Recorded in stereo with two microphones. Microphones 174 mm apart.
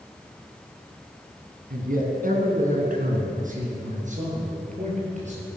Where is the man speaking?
55° right (ahead or behind), 2.5 m; by 5.5 s 40° right (ahead or behind), 6 m.